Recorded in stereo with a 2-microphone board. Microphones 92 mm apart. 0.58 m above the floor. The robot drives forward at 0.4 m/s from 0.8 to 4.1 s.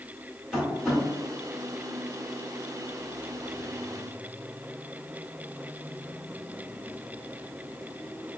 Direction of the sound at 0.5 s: Centre (ahead or behind).